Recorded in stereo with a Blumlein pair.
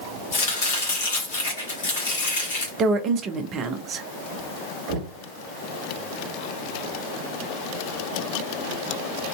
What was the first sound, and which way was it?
Chopping, 60° left.